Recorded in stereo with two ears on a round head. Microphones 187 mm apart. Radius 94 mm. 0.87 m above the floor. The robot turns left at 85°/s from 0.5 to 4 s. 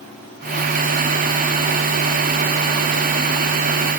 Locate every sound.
Only background noise.